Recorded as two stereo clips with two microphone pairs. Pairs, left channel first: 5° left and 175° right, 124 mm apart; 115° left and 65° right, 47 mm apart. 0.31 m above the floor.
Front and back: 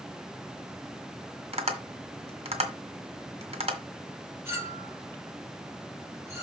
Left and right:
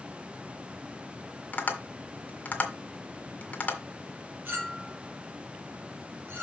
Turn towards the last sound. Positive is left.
turn(degrees=-110)